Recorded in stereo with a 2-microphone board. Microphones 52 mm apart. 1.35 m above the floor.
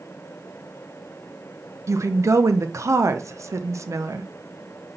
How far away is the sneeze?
I don't hear a sneeze.